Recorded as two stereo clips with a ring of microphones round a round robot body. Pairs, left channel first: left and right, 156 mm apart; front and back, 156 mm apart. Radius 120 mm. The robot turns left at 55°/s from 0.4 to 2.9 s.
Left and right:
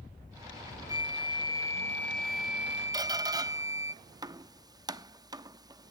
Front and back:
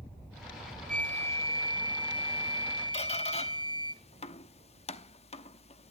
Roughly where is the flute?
Left.